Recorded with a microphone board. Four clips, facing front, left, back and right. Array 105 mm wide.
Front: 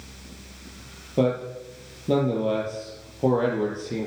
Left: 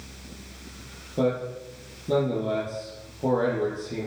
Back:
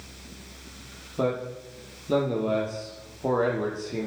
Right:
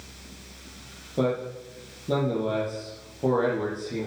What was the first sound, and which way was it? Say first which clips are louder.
A man speaking: left 1 dB, front 4 dB; 10° right.